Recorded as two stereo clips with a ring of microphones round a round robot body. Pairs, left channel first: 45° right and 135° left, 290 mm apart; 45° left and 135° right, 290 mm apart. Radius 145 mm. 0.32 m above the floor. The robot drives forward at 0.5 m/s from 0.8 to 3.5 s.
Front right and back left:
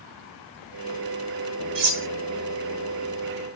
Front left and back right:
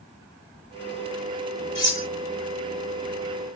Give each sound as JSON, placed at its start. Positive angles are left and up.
{"t": 1.8, "sound": "cutlery clinking", "azimuth_deg": 120, "distance_m": 1.3}